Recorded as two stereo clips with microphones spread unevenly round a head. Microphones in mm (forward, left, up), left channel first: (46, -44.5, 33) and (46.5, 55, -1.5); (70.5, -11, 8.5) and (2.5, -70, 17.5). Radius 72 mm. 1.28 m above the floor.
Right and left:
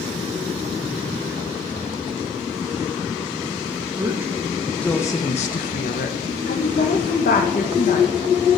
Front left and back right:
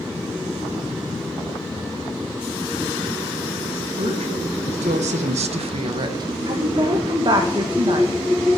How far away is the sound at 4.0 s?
About 1.5 m.